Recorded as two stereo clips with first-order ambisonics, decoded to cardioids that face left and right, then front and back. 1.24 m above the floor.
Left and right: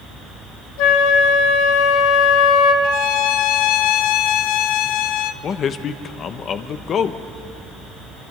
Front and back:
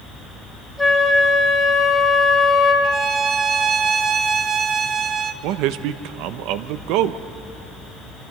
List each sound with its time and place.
0.8 s a flute: 90° left, 2.5 m
2.8 s a violin: 115° left, 0.7 m
5.4 s a man speaking: 150° left, 0.8 m